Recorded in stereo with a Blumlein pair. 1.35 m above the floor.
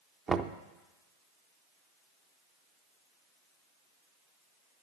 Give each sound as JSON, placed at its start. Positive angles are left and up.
{"t": 0.3, "sound": "knocking", "azimuth_deg": -20, "distance_m": 0.7}